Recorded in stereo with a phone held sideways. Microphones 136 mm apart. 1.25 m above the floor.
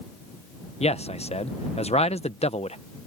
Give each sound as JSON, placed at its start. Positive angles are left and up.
{"t": 0.8, "sound": "a man speaking", "side_deg": 50}